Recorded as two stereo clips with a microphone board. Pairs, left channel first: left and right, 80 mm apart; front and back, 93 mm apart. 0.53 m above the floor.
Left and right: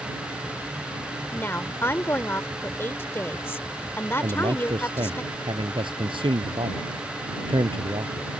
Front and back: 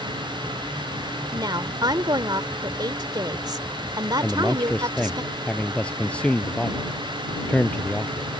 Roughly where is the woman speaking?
Behind left.